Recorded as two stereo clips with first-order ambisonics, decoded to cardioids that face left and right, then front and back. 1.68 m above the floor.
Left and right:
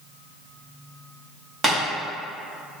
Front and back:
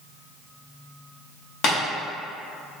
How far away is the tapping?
About 1.1 m.